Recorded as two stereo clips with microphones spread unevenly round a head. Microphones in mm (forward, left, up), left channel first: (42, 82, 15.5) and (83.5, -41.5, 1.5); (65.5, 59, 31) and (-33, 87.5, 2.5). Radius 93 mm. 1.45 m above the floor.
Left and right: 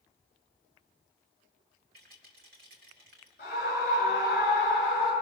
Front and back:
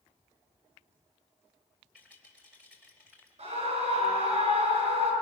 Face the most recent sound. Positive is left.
turn(degrees=150)